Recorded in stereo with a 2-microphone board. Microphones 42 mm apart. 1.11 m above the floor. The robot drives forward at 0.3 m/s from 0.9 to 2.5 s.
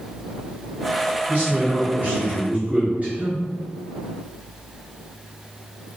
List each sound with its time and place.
1.3 s a man speaking: 50° right (ahead or behind), 1.0 m; by 3.4 s 35° right (ahead or behind), 1.2 m